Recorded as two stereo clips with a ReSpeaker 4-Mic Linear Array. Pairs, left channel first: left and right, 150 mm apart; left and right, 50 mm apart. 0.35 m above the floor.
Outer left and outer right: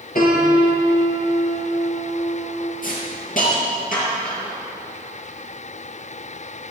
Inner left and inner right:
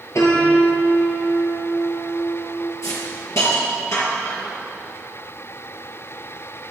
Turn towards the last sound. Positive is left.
turn(degrees=70)  # may be behind; listen again after turning